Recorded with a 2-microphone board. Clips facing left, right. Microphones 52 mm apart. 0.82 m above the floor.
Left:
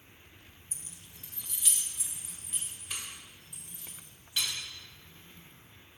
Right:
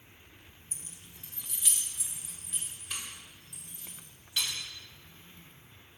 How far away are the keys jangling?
About 0.6 m.